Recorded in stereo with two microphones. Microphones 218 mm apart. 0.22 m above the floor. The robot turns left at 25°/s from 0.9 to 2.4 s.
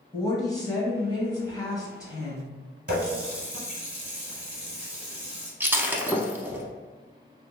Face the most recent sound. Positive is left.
turn(degrees=-10)  # may be behind; listen again after turning